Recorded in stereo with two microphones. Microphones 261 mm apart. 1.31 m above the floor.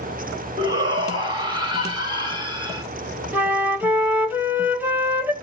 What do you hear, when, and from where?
0.6 s a shout: 15° right (ahead or behind), 2.5 m
3.3 s a flute: 5° right (ahead or behind), 0.9 m